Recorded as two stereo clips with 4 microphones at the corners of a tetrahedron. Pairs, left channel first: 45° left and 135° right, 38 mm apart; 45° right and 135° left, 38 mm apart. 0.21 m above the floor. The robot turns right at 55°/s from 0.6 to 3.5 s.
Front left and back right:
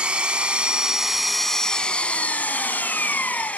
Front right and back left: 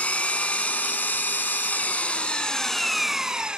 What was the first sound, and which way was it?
An engine running, 85° right.